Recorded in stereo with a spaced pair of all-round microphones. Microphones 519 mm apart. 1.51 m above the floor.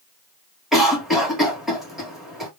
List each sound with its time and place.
0.7 s a cough: centre (ahead or behind), 1.6 m